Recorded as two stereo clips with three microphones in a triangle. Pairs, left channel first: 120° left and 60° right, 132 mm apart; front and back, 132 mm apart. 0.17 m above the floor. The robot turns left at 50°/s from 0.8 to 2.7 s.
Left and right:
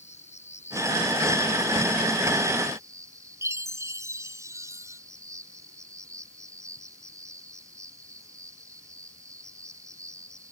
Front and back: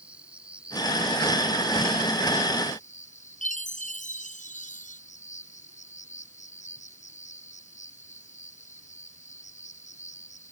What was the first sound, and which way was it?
An insect, 100° left.